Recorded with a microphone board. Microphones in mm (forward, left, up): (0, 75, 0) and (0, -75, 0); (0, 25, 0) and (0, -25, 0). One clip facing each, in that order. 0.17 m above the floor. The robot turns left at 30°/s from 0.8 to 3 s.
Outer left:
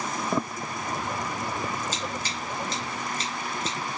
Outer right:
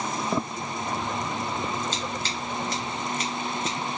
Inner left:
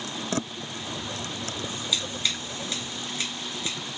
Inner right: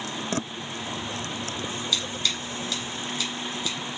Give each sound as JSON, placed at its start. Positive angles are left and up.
{"t": 1.9, "sound": "scissors", "side_deg": 10, "distance_m": 2.5}